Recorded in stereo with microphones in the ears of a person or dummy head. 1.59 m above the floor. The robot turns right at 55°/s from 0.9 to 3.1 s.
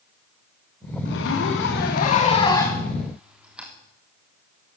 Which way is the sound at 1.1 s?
75° left.